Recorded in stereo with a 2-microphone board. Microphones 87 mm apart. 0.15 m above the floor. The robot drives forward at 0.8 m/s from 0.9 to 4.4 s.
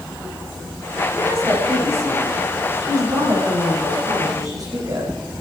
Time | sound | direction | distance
1.1 | a woman speaking | 35° right (ahead or behind) | 9 m